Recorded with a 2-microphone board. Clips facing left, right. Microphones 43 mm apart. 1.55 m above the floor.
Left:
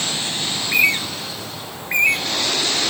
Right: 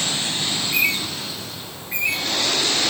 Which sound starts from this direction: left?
A bird, at 0.6 s.